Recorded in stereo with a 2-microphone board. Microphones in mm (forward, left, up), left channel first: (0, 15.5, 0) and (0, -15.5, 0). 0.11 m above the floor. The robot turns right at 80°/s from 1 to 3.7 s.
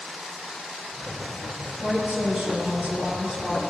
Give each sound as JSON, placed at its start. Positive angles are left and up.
{"t": 1.8, "sound": "a woman speaking", "azimuth_deg": -170, "distance_m": 3.0}